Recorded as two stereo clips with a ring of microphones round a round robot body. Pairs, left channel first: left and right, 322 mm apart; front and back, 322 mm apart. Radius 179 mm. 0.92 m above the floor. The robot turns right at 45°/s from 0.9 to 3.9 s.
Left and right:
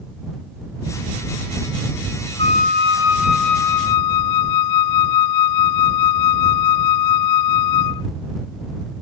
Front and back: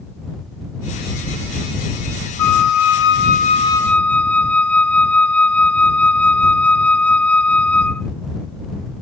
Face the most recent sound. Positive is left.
turn(degrees=85)